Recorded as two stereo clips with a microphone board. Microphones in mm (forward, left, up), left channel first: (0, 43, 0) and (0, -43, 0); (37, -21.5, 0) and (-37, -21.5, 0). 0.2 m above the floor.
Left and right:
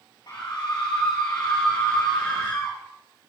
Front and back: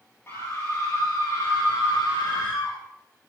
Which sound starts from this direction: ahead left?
A scream, at 0.3 s.